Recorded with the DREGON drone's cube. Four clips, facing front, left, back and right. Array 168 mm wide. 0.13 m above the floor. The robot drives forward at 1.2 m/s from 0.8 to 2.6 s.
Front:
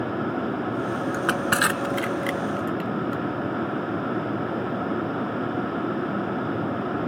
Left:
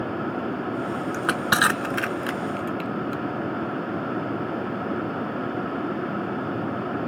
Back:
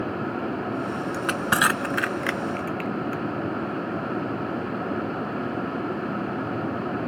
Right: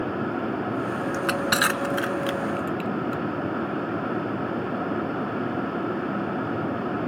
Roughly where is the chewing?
I don't hear chewing.